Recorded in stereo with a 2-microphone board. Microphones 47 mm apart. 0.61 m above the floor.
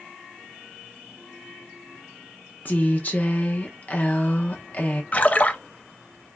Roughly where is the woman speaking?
Left.